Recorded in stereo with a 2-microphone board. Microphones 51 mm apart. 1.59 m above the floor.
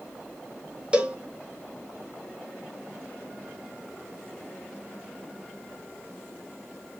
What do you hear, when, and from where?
0.9 s a cowbell: 20° right (ahead or behind), 1.0 m